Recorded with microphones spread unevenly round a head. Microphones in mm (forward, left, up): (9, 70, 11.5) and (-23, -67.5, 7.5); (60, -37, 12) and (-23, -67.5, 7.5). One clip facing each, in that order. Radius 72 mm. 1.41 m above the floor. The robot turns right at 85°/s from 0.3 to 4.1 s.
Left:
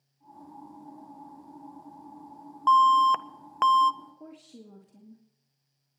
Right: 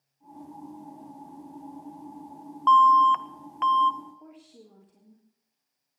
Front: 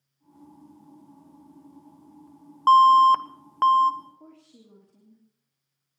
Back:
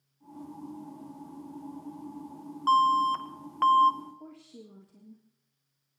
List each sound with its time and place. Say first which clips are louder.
2.7 s an alarm: right 2 dB, front 9 dB; 5° left, 0.6 m; by 3.9 s 110° left, 0.6 m
4.0 s a woman speaking: even, back 4 dB; 110° left, 2.5 m; by 5.2 s 115° left, 2.5 m